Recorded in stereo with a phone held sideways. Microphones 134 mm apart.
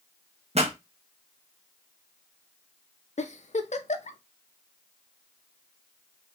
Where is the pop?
55° right (ahead or behind), 1.0 m.